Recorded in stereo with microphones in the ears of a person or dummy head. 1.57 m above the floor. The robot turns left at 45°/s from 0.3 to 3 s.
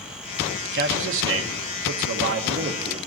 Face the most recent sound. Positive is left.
turn(degrees=-160)